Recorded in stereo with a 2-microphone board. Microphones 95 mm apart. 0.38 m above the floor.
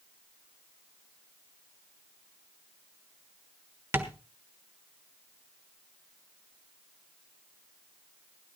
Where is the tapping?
25° right (ahead or behind), 1.3 m.